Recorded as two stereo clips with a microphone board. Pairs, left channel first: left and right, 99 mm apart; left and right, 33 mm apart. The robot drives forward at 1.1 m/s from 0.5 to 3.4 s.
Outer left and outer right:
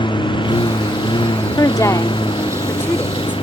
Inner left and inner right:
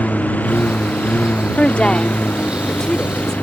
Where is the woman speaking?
40° left (ahead or behind); by 3.3 s 20° left (ahead or behind).